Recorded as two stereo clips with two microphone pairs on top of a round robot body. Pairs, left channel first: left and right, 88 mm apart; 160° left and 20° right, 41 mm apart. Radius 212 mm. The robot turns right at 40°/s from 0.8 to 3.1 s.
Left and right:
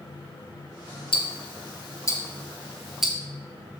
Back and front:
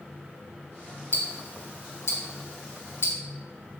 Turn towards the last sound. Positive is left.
turn(degrees=-175)